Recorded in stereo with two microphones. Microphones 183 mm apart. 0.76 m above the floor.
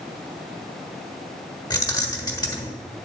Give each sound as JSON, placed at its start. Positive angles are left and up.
{"t": 1.7, "sound": "keys jangling", "side_deg": 20, "distance_m": 1.4}